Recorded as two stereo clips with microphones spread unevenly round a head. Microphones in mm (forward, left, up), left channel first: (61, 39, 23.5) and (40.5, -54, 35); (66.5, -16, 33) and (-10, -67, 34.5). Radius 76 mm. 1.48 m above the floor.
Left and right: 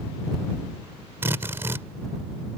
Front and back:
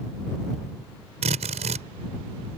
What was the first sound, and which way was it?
A drill, 175° right.